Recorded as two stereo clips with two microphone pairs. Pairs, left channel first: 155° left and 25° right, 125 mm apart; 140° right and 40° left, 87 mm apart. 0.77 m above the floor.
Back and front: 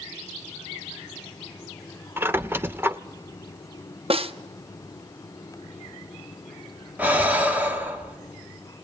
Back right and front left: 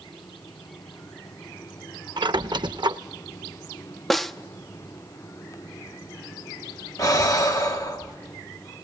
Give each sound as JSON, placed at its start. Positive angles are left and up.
{"t": 2.2, "sound": "a squeak", "azimuth_deg": 45, "distance_m": 0.6}
{"t": 4.1, "sound": "a snare drum", "azimuth_deg": -55, "distance_m": 0.8}
{"t": 7.0, "sound": "breathing", "azimuth_deg": -100, "distance_m": 1.6}